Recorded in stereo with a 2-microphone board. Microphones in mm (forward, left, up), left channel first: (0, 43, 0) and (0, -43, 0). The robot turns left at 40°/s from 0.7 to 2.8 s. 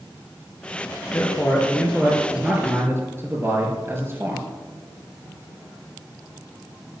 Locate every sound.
1.1 s a man speaking: 35° left, 4.5 m; by 4.5 s 30° right, 4.5 m